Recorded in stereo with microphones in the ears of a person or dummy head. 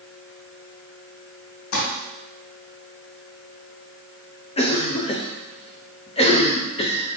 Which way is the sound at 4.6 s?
25° left (ahead or behind).